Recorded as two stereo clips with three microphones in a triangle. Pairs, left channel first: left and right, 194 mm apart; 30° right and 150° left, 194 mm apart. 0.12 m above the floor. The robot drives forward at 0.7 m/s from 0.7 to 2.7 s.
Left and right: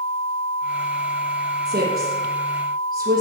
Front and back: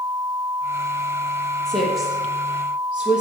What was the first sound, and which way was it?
A woman speaking, 115° right.